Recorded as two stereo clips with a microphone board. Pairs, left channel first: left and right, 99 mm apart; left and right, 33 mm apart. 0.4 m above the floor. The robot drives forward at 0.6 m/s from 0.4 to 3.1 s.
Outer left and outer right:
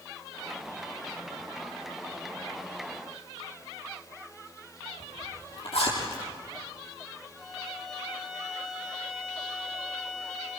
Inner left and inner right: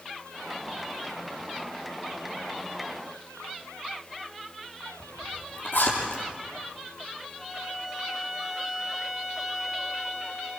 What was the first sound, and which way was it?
A zipper, 75° left (ahead or behind).